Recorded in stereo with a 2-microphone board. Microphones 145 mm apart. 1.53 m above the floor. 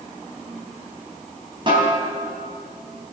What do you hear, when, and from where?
1.7 s a snare drum: 35° right (ahead or behind), 4 m